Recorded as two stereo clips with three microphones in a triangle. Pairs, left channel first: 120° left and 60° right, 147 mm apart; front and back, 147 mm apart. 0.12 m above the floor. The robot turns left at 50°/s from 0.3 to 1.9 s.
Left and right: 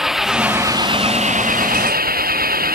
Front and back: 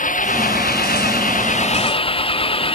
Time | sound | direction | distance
0.0 | an engine running | 30° left | ?